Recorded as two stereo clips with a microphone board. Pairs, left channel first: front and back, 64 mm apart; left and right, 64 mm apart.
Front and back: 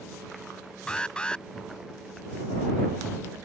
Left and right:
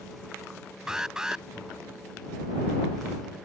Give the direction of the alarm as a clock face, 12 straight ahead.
1 o'clock.